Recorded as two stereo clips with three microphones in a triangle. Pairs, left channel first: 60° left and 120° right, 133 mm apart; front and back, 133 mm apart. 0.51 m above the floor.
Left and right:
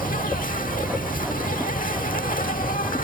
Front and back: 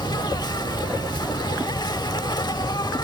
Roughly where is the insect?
Ahead left.